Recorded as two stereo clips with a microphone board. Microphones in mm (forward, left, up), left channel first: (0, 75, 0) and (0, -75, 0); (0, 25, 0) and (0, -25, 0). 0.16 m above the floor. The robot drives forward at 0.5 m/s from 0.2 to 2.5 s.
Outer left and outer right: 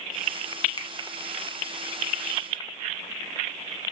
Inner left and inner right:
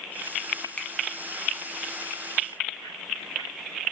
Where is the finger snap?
30° left (ahead or behind), 0.9 m.